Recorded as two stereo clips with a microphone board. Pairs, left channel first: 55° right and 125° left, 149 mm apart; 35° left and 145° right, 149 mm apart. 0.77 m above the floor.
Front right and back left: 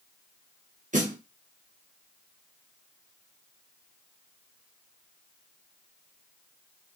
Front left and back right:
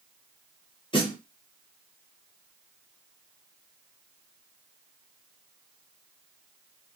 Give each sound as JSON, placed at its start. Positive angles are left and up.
{"t": 0.9, "sound": "a snare drum", "azimuth_deg": 90, "distance_m": 1.0}